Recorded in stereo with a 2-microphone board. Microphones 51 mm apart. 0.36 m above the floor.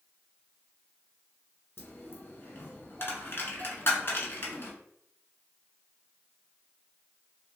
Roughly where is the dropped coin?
Left.